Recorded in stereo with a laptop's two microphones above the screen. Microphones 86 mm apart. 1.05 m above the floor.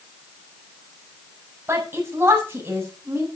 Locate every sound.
1.7 s a woman speaking: 25° right (ahead or behind), 6.5 m